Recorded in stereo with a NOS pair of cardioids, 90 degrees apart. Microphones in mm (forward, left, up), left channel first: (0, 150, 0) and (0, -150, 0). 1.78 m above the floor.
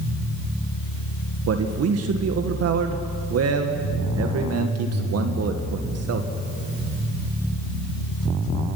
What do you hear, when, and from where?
1.5 s a man speaking: 55° right, 1.8 m